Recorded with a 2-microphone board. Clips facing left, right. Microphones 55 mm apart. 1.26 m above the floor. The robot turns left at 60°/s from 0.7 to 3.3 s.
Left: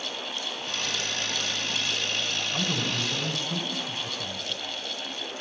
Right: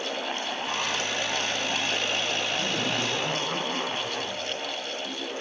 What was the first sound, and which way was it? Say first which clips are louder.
A man speaking: right 1 dB; 100° left.